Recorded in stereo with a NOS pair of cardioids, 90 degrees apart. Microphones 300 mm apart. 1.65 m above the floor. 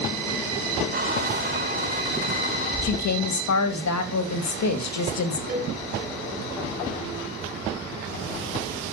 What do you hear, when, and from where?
0.9 s a squeak: 30° right, 4.5 m
2.8 s a woman speaking: 65° left, 2.5 m
5.5 s a cowbell: 30° right, 4.5 m